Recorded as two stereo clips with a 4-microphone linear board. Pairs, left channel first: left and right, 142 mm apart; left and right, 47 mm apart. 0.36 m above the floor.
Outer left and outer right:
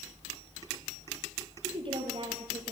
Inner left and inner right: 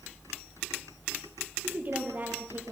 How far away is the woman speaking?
About 7 m.